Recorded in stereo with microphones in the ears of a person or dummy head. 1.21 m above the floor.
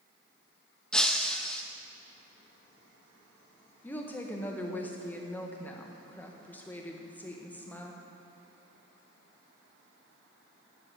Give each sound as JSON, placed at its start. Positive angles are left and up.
{"t": 0.9, "sound": "breaking glass", "side_deg": 5, "distance_m": 0.6}
{"t": 3.8, "sound": "a woman speaking", "side_deg": 5, "distance_m": 1.1}